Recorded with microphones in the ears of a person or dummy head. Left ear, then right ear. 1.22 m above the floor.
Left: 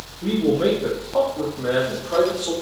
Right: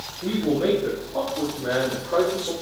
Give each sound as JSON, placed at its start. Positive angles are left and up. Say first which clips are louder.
{"t": 0.2, "sound": "a man speaking", "louder": "left 3 dB", "side_deg": 50, "distance_m": 1.0}